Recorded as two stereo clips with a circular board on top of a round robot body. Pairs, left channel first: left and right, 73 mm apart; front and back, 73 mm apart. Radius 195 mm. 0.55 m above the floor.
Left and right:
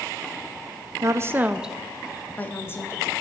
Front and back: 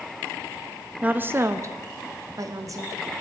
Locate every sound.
1.0 s a woman speaking: 115° right, 0.9 m; by 3.0 s 140° left, 1.5 m